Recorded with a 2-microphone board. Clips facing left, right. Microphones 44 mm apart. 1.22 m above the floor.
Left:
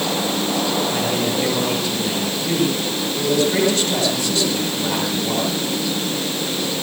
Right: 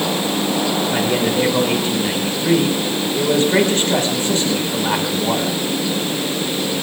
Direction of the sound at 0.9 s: 35° right (ahead or behind).